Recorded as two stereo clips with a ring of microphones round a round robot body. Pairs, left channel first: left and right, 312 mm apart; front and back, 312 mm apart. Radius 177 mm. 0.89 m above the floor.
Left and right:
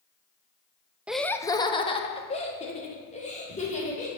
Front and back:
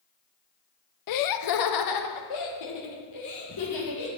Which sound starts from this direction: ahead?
Laughter, at 1.1 s.